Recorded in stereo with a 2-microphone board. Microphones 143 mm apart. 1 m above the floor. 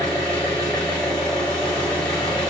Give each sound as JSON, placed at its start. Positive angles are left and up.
{"t": 0.0, "sound": "an engine running", "side_deg": 10, "distance_m": 1.6}